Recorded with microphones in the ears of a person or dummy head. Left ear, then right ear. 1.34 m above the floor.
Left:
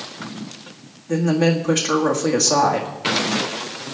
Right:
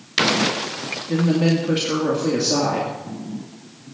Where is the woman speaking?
45° left (ahead or behind), 1.9 m.